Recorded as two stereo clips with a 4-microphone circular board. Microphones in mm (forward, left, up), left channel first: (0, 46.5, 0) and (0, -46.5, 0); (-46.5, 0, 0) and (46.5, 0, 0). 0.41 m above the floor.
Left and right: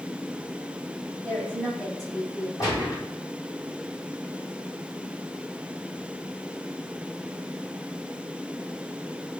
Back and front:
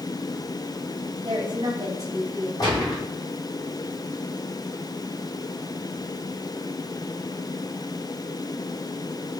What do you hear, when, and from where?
1.2 s a woman speaking: 35° right, 1.7 m; by 2.5 s 65° left, 1.1 m
2.6 s a gunshot: 140° left, 1.9 m